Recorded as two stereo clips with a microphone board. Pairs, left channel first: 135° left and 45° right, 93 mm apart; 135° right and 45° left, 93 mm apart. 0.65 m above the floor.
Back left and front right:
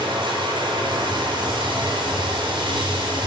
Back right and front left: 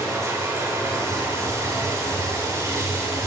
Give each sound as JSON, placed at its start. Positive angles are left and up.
{"t": 0.0, "sound": "running water", "azimuth_deg": -15, "distance_m": 4.0}